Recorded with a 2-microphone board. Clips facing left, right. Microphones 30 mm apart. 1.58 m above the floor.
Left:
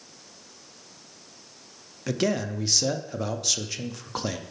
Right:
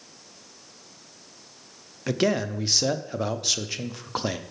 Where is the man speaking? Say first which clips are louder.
Right 2 dB; 15° right (ahead or behind), 0.5 m.